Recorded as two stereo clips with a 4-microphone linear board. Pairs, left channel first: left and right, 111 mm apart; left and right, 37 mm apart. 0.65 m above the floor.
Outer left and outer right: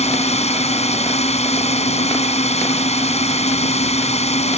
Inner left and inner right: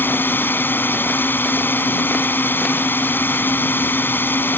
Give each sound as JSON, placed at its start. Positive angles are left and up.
{"t": 0.0, "sound": "a drone", "side_deg": 75}